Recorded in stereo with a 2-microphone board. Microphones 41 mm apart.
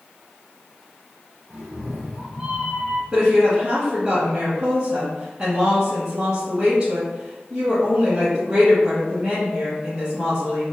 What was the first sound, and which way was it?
A cat meowing, 15° right (ahead or behind).